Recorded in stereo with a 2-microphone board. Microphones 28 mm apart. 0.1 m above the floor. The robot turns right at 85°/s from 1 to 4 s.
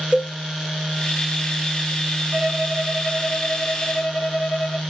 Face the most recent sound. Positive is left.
turn(degrees=80)